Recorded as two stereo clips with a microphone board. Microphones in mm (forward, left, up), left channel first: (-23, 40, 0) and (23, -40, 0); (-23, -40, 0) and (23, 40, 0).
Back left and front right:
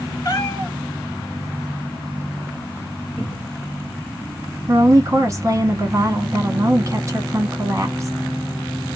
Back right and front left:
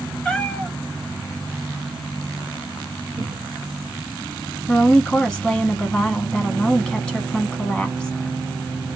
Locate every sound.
0.2 s a cat meowing: 165° left, 1.1 m
3.2 s a cupboard door: 55° left, 0.9 m
4.7 s a woman speaking: 50° right, 1.2 m